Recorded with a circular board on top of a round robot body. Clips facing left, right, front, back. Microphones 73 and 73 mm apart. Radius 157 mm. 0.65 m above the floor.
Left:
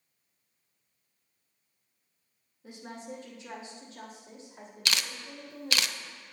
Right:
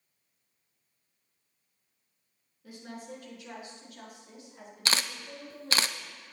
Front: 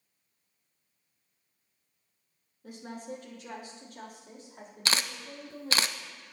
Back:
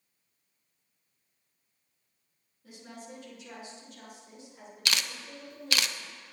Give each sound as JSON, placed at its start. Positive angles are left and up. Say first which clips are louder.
{"t": 2.6, "sound": "a woman speaking", "louder": "left 1 dB, front 6 dB", "azimuth_deg": 25, "distance_m": 3.0}
{"t": 4.8, "sound": "a camera shutter", "louder": "right 2 dB, front 2 dB", "azimuth_deg": -45, "distance_m": 0.7}